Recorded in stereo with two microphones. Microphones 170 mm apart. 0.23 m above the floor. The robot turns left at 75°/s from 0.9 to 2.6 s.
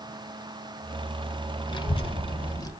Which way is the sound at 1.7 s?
115° left.